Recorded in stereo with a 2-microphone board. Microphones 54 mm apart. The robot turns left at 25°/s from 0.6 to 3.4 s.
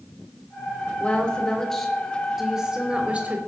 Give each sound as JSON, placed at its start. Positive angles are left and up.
{"t": 1.0, "sound": "a woman speaking", "azimuth_deg": 25, "distance_m": 3.0}